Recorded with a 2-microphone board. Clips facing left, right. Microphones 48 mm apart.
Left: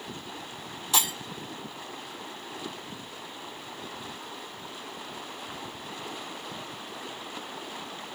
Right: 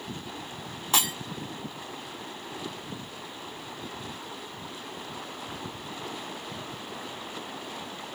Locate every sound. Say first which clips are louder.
0.9 s breaking glass: right 1 dB; 35° right (ahead or behind), 1.1 m